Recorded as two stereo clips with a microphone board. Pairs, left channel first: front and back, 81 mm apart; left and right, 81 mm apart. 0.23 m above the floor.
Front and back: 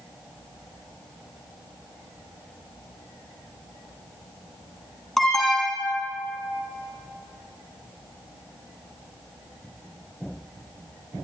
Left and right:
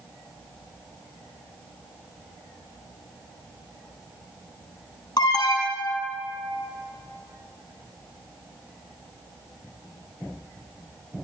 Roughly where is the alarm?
Left.